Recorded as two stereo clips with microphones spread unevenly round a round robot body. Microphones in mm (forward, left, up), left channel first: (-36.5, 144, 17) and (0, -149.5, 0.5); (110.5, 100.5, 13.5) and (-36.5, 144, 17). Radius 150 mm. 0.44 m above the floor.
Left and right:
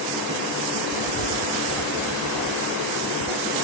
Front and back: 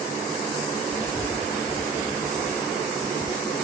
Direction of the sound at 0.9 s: 105° right.